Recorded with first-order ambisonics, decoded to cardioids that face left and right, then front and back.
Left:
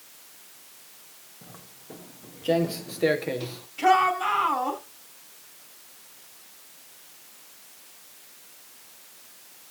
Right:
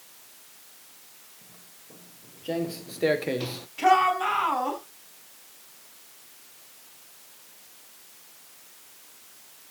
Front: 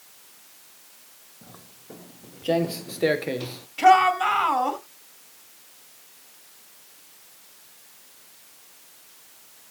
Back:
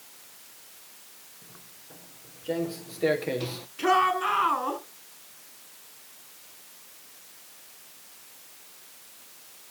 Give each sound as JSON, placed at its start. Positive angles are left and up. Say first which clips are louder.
{"t": 1.4, "sound": "footsteps", "louder": "left 5 dB, front 3 dB", "azimuth_deg": 35, "distance_m": 1.4}
{"t": 3.8, "sound": "a shout", "louder": "even, front 6 dB", "azimuth_deg": -10, "distance_m": 5.0}